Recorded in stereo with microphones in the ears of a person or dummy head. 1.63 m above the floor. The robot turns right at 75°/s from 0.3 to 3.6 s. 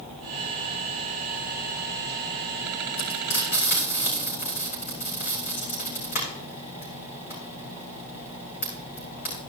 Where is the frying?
85° left, 4.5 m; by 9.4 s 45° left (ahead or behind), 4.5 m.